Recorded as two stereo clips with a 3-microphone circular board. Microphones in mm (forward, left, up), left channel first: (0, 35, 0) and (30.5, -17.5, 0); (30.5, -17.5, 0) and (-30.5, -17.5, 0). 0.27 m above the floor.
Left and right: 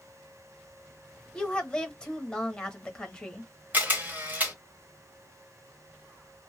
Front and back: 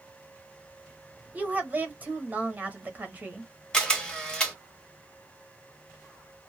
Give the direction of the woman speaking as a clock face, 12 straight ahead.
6 o'clock.